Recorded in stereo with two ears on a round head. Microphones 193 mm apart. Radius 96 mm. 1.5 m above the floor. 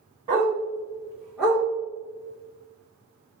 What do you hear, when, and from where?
0.3 s a dog barking: 25° right (ahead or behind), 1.7 m; by 1.6 s centre (ahead or behind), 1.7 m